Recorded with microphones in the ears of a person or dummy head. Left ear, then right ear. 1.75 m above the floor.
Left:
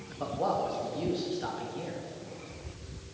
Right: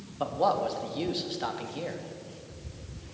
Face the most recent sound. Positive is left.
turn(degrees=-40)  # may be behind; listen again after turning